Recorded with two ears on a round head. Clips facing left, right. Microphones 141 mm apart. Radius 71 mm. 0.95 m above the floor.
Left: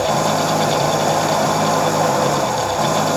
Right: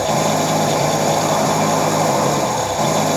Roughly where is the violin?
I don't hear a violin.